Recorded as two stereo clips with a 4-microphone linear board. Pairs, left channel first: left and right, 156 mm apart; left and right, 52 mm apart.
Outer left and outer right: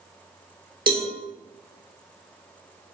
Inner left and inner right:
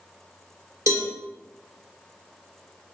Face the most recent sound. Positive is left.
turn(degrees=-75)  # may be behind; listen again after turning